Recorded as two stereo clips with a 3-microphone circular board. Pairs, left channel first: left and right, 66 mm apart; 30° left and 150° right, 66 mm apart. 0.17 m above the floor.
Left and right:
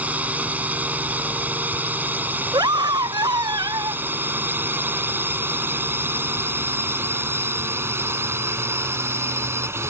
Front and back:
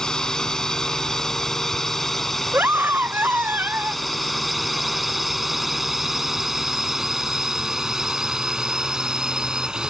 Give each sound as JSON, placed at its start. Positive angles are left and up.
{"t": 0.0, "sound": "a drone", "azimuth_deg": -40}
{"t": 2.5, "sound": "a scream", "azimuth_deg": -90}